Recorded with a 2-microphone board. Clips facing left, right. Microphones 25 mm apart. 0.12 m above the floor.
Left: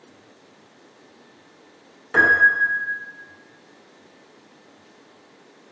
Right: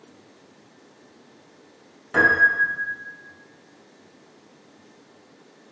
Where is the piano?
15° left (ahead or behind), 0.9 m.